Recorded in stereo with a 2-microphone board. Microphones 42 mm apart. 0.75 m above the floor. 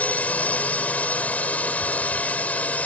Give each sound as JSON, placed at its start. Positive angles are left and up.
{"t": 0.0, "sound": "a drone", "side_deg": 40}